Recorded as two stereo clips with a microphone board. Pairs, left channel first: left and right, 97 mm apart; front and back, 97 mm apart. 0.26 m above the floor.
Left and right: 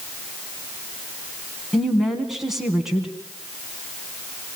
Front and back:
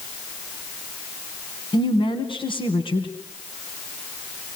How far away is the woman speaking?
About 2 m.